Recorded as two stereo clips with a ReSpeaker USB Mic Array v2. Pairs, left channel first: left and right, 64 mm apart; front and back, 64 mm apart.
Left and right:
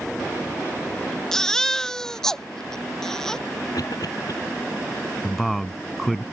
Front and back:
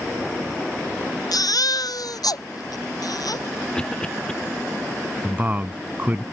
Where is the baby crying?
10° left.